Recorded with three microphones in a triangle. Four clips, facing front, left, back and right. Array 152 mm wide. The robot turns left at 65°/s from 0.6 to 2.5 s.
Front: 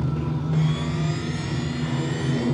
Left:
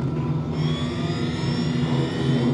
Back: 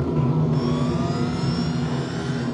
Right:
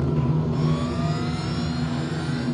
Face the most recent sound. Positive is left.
turn(degrees=75)